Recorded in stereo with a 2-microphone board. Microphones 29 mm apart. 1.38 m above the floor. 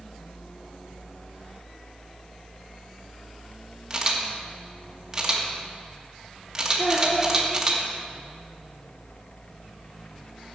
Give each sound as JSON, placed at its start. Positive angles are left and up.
{"t": 3.9, "sound": "a camera shutter", "side_deg": -20, "distance_m": 1.7}
{"t": 6.8, "sound": "a child speaking", "side_deg": 20, "distance_m": 2.5}